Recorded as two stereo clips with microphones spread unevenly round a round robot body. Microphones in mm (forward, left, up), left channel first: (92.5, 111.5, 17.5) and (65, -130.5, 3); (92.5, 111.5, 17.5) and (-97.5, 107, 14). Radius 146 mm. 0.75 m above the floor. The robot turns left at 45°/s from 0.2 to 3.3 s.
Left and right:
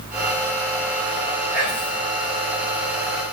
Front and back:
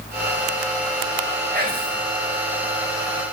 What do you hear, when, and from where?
1.5 s whispering: 150° left, 4 m; by 2.0 s 130° left, 4 m